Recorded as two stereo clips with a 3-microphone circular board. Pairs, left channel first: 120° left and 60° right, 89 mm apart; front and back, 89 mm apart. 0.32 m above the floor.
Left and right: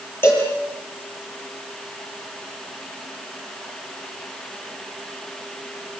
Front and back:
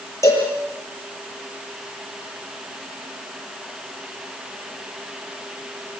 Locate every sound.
0.2 s a cowbell: 55° left, 8 m